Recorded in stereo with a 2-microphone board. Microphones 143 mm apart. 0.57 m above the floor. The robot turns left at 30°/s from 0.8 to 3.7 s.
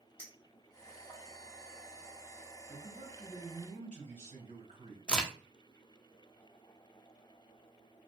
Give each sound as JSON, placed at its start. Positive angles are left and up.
{"t": 0.2, "sound": "a clink", "side_deg": 20, "distance_m": 1.5}
{"t": 2.7, "sound": "a man speaking", "azimuth_deg": -85, "distance_m": 1.6}
{"t": 5.1, "sound": "a crack", "side_deg": 10, "distance_m": 0.5}